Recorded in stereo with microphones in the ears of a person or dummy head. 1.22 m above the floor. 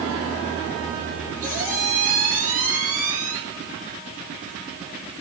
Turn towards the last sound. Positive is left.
turn(degrees=-50)  # may be behind; listen again after turning